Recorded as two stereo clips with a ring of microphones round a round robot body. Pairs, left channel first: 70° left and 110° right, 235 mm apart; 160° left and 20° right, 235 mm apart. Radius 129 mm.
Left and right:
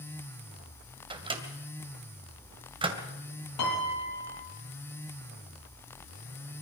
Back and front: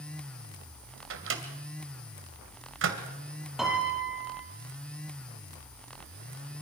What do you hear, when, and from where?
1.1 s a microwave: 45° right, 2.5 m
3.6 s a piano: 65° left, 7 m